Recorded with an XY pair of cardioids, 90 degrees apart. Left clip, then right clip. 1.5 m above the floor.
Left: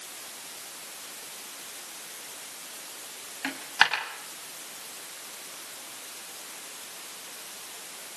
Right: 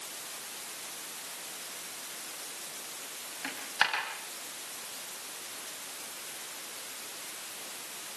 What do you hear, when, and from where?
3.4 s a dropped coin: 50° left, 5.5 m